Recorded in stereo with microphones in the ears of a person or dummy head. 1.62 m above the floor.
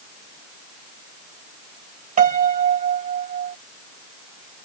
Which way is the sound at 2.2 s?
40° right (ahead or behind).